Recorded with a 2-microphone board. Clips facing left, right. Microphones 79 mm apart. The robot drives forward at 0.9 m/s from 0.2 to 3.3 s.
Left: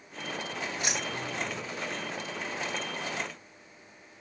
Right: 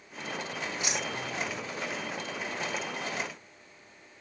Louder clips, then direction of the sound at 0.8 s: Even; 50° left (ahead or behind).